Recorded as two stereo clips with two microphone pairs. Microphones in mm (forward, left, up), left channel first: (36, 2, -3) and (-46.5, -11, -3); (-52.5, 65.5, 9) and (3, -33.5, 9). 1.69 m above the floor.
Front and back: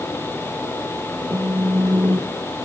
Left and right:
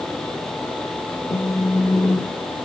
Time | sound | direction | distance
1.3 | a phone buzzing | 170° left | 2.0 m